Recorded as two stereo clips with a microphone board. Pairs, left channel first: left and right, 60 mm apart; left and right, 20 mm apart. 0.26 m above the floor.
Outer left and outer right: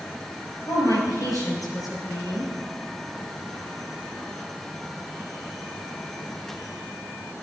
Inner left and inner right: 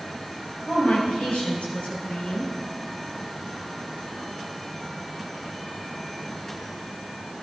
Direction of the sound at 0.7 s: 65° left (ahead or behind).